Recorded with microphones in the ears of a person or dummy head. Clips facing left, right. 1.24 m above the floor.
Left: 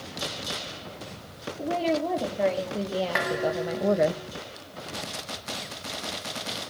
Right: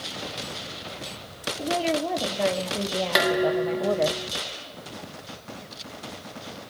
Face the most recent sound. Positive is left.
turn(degrees=-50)  # may be behind; listen again after turning